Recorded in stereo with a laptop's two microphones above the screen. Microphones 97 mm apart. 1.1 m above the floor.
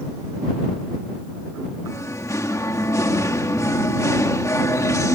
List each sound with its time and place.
1.9 s singing: 35° left (ahead or behind)